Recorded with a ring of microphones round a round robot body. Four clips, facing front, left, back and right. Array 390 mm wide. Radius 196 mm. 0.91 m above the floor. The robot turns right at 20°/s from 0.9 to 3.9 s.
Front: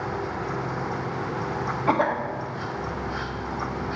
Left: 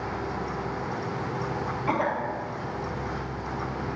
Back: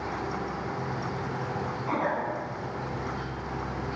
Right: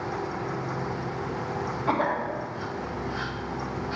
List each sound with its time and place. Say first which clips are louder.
1.9 s a cough: right 1 dB, front 6 dB; 10° right, 1.1 m; by 2.2 s 5° right, 1.1 m